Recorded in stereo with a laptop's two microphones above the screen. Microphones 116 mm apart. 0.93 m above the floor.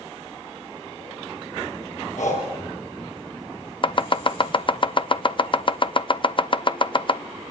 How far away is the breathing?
About 7 m.